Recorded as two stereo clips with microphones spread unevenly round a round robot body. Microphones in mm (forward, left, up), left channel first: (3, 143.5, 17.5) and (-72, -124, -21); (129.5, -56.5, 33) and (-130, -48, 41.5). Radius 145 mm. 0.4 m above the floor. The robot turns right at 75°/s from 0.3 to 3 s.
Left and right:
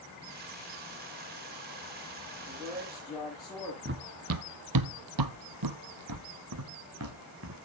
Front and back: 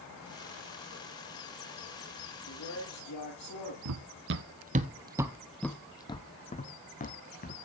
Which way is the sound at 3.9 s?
160° right.